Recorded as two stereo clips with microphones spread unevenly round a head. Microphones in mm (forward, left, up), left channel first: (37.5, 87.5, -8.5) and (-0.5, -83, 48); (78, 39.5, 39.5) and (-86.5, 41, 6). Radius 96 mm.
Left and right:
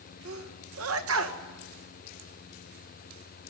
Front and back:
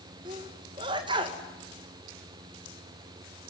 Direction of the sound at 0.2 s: 115° right.